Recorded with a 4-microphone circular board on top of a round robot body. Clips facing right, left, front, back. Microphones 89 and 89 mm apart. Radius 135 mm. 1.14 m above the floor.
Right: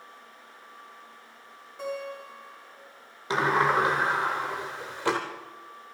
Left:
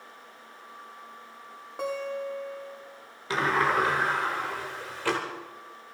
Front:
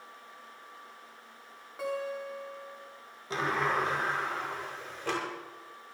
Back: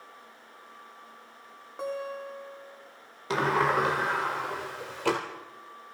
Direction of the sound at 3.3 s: 160° right.